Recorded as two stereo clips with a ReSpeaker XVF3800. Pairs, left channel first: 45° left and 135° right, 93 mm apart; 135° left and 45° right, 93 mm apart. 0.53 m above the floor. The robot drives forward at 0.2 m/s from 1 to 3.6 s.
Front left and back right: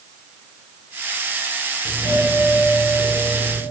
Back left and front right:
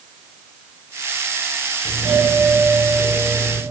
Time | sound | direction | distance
1.9 | a doorbell | 140° right | 2.5 m